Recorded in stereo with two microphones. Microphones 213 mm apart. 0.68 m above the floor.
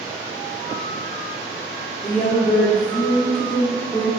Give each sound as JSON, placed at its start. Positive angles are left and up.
{"t": 2.0, "sound": "a woman speaking", "side_deg": 30, "distance_m": 1.8}